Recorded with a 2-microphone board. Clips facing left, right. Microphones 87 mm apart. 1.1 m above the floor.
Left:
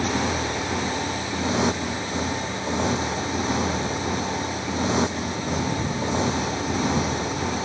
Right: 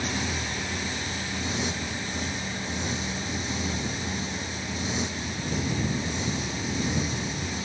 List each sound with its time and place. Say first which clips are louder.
0.0 s a motorcycle: left 7 dB; 80° left